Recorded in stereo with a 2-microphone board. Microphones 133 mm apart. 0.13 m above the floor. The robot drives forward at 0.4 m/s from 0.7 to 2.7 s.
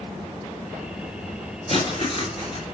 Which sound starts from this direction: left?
Writing, at 1.7 s.